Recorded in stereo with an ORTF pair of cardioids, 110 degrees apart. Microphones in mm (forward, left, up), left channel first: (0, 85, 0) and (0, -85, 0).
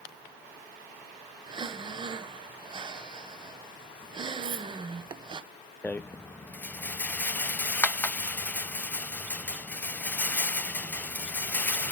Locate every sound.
1.5 s breathing: 30° right, 0.9 m
4.4 s cutlery clinking: 55° right, 4 m
5.8 s a rattle: 10° left, 0.6 m